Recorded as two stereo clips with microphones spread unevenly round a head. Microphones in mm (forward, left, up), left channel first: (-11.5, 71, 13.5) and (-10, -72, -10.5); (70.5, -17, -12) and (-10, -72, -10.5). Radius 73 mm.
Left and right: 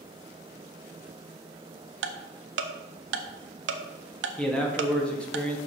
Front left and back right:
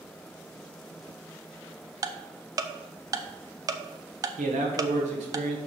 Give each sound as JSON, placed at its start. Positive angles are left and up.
{"t": 2.0, "sound": "ticking", "azimuth_deg": -90, "distance_m": 0.6}
{"t": 4.4, "sound": "a man speaking", "azimuth_deg": 175, "distance_m": 1.0}